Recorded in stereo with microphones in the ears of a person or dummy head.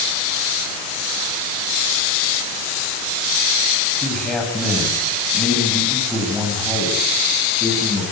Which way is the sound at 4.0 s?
5° left (ahead or behind).